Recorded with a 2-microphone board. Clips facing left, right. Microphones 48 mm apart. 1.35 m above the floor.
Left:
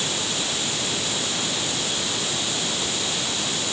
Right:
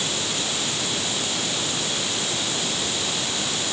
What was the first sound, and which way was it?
Only background noise.